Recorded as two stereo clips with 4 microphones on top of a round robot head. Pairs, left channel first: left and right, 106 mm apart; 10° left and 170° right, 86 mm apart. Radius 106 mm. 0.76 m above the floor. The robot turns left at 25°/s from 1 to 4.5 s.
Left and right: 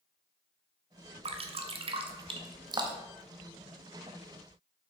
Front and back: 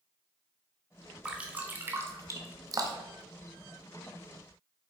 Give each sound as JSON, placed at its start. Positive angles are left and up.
{"t": 1.2, "sound": "dripping", "azimuth_deg": -95, "distance_m": 1.0}